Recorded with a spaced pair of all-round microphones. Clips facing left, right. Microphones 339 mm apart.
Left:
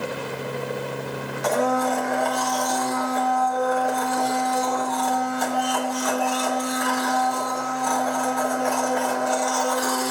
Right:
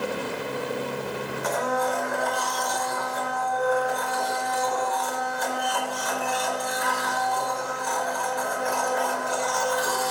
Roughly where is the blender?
Left.